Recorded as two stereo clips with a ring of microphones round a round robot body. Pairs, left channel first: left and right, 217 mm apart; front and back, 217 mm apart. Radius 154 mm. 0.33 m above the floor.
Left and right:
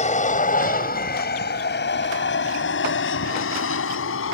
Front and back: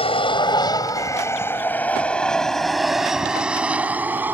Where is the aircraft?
50° left; by 4.3 s 100° left.